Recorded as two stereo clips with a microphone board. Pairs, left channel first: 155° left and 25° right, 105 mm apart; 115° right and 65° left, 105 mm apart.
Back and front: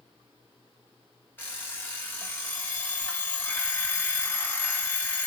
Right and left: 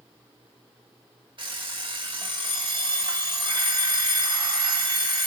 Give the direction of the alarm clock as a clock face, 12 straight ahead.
9 o'clock.